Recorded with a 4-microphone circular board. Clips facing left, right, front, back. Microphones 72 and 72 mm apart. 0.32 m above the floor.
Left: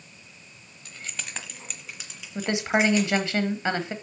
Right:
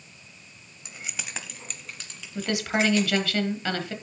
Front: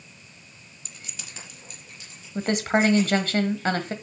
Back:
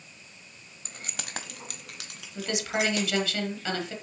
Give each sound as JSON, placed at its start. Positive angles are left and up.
{"t": 0.8, "sound": "keys jangling", "azimuth_deg": -150, "distance_m": 0.8}
{"t": 2.4, "sound": "a woman speaking", "azimuth_deg": 30, "distance_m": 1.3}